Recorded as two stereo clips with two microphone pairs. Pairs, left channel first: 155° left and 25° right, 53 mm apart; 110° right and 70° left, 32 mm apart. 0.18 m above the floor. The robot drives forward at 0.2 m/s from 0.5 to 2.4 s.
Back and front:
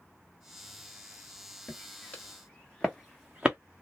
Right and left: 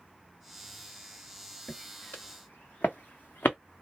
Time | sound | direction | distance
1.7 | footsteps | 140° right | 1.5 m